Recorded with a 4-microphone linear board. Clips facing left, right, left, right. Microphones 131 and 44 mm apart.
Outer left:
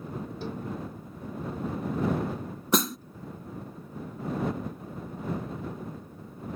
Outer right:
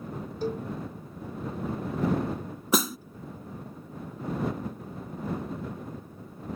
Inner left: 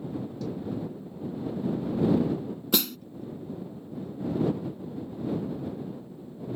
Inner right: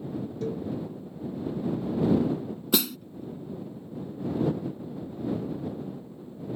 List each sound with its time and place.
0.4 s a cowbell: 45° right (ahead or behind)
2.7 s a snare drum: centre (ahead or behind)